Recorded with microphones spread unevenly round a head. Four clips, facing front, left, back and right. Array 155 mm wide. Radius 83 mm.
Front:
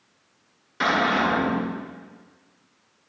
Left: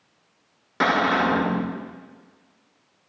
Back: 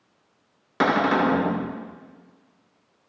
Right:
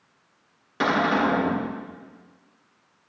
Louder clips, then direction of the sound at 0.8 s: Left 1 dB, back 2 dB; 175° left.